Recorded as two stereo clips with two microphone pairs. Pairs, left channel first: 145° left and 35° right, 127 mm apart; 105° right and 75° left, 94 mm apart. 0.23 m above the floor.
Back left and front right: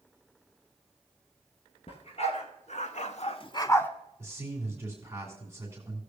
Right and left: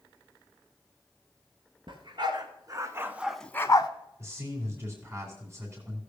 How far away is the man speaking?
About 2.5 m.